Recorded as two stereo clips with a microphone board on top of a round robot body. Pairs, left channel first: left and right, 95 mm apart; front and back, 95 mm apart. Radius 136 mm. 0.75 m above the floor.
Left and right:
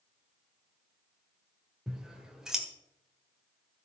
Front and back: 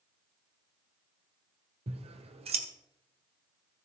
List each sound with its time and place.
1.9 s scissors: 175° right, 1.5 m